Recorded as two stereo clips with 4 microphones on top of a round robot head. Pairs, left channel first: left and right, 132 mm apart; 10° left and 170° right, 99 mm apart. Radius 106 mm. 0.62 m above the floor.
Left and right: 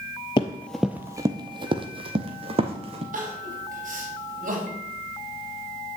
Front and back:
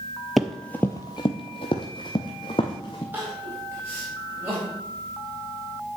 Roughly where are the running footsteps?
Left.